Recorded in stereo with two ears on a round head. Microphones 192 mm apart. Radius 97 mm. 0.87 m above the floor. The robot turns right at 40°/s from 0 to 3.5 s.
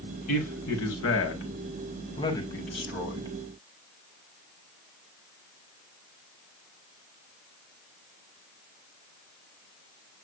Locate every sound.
0.3 s a man speaking: 80° left, 4.5 m; by 3.3 s 160° right, 4.5 m